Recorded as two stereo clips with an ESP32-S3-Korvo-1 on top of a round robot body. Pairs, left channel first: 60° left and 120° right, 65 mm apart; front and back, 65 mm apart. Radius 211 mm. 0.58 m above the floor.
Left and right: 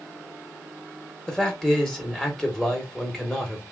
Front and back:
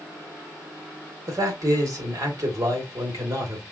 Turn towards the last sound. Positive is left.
turn(degrees=140)